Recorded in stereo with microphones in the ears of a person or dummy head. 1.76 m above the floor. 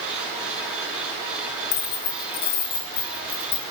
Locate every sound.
1.7 s keys jangling: 45° left (ahead or behind), 1.0 m